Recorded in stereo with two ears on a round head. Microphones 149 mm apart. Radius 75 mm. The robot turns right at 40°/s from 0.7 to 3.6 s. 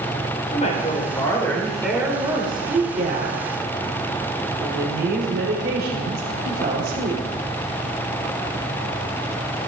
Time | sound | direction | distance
0.5 | a woman speaking | 135° left | 4.5 m